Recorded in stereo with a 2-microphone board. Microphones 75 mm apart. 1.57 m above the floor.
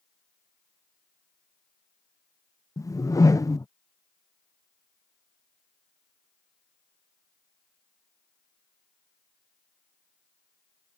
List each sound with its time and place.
2.8 s a whoosh: 50° left (ahead or behind)